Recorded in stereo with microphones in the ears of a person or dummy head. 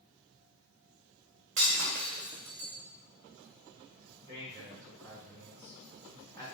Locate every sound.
1.6 s breaking glass: 40° right (ahead or behind), 1.5 m
4.3 s a man speaking: 25° left (ahead or behind), 2.5 m